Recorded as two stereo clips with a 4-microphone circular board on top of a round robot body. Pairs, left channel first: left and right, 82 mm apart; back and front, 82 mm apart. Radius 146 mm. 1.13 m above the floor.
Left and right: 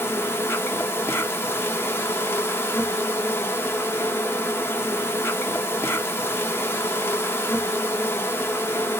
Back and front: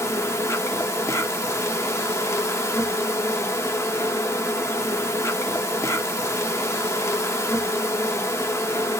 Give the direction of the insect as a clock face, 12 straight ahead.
7 o'clock.